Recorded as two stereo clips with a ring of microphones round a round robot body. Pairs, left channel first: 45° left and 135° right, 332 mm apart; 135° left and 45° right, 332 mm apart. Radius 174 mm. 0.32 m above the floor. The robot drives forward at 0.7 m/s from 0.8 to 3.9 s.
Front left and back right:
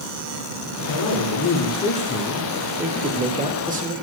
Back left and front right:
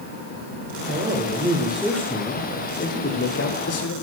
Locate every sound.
0.9 s a man speaking: 15° left, 1.4 m; by 3.9 s 165° left, 1.6 m